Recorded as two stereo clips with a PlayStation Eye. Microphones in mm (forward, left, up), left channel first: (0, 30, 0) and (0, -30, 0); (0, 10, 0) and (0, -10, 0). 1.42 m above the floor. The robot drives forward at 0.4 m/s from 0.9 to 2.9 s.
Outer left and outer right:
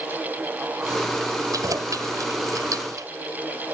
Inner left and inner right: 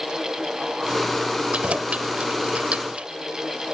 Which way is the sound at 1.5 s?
75° right (ahead or behind).